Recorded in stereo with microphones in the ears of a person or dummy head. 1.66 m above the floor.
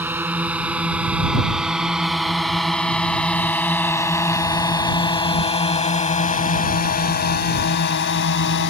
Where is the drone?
15° right (ahead or behind); by 8.7 s 65° left (ahead or behind).